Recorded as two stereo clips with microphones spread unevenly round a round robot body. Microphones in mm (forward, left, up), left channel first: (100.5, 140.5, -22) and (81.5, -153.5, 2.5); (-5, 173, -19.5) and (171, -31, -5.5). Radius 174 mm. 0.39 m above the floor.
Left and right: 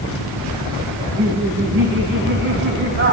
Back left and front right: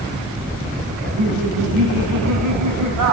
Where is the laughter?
45° right, 4 m.